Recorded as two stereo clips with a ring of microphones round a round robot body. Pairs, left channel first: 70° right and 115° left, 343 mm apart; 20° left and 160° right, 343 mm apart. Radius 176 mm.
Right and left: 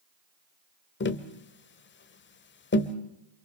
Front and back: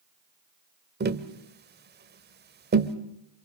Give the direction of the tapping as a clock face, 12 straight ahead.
4 o'clock.